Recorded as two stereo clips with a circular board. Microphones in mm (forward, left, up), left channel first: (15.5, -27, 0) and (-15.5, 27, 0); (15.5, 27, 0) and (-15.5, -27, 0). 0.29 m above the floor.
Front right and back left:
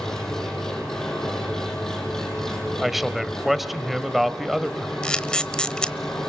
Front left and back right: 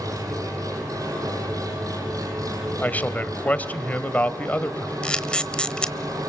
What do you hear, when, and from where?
0.0 s an engine running: 140° right, 7 m
2.8 s a man speaking: 35° left, 1.5 m
5.0 s a camera shutter: straight ahead, 1.0 m